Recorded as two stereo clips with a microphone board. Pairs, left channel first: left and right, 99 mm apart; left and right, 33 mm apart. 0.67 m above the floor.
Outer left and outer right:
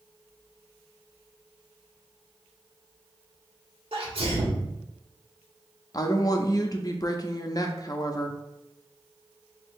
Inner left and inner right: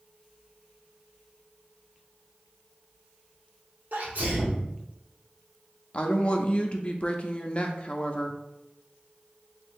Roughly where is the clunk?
I don't hear a clunk.